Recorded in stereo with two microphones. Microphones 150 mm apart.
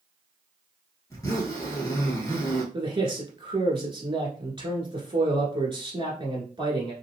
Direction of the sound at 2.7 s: 35° right (ahead or behind).